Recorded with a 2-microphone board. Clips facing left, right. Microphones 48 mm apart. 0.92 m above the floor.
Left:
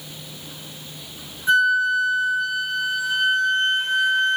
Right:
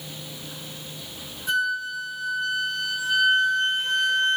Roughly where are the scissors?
No scissors in this recording.